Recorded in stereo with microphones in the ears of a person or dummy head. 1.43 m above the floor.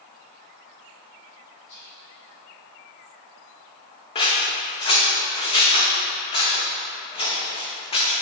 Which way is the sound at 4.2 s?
30° left (ahead or behind).